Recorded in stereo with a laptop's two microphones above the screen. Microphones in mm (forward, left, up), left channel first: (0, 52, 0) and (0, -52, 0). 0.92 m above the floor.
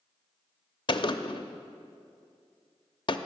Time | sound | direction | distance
0.9 | a gunshot | 50° left (ahead or behind) | 0.6 m